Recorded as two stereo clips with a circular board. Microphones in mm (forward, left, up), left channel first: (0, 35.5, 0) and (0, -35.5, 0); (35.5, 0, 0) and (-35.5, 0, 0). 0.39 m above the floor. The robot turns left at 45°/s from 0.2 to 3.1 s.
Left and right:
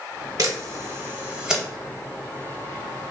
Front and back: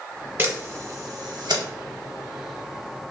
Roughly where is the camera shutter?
Behind right.